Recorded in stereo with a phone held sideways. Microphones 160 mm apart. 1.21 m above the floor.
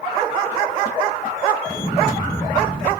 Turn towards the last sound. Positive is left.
turn(degrees=45)  # may be behind; listen again after turning